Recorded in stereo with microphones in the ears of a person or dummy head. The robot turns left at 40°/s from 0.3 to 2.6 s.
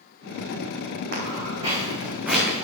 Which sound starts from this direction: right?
Footsteps, at 1.1 s.